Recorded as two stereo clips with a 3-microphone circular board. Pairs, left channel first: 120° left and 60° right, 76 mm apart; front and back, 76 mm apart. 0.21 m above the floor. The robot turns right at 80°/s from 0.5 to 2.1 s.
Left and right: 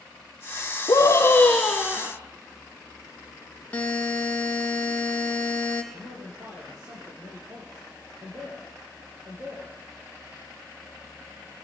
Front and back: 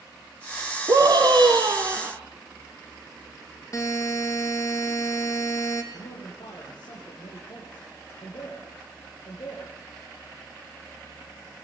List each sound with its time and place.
0.9 s a scream: 145° left, 2 m; by 2.1 s 120° right, 2 m
3.7 s a buzzer: 50° left, 3.5 m
5.9 s a man speaking: 15° right, 6.5 m